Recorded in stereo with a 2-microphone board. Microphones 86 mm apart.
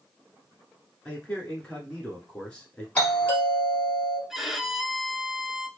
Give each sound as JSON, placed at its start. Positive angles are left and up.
{"t": 1.1, "sound": "a man speaking", "side_deg": 10, "distance_m": 1.4}
{"t": 3.0, "sound": "a doorbell", "side_deg": 25, "distance_m": 2.5}
{"t": 4.3, "sound": "a violin", "side_deg": -5, "distance_m": 0.5}